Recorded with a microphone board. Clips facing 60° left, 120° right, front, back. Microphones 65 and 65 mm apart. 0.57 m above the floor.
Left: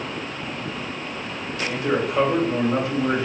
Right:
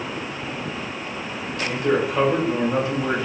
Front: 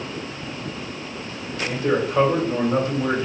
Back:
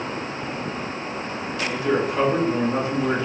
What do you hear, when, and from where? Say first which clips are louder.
1.6 s a man speaking: right 2 dB, front 1 dB; 30° right, 1.9 m